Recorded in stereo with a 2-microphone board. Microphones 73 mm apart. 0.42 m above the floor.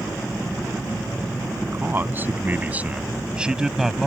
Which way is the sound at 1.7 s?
30° right (ahead or behind).